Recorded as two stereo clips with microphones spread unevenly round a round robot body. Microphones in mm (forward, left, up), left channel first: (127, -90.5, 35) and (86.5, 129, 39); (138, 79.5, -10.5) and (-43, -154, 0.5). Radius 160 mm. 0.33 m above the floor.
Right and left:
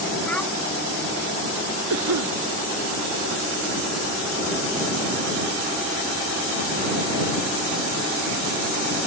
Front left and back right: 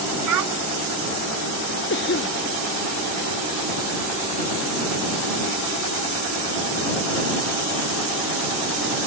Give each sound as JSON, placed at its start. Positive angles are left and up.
{"t": 0.3, "sound": "a child speaking", "azimuth_deg": -165}
{"t": 1.9, "sound": "a cough", "azimuth_deg": 110}